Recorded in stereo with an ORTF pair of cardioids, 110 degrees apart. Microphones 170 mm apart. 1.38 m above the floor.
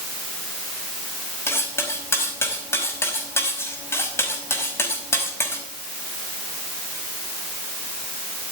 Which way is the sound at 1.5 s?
15° left.